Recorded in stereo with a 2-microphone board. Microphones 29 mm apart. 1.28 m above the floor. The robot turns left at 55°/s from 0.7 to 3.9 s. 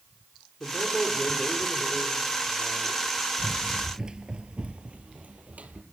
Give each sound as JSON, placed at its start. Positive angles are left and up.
{"t": 0.6, "sound": "a man speaking", "azimuth_deg": 60, "distance_m": 4.5}
{"t": 3.4, "sound": "running footsteps", "side_deg": 5, "distance_m": 1.3}